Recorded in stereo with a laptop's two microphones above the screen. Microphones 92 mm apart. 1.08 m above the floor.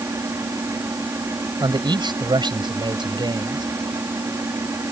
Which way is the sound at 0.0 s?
35° right (ahead or behind).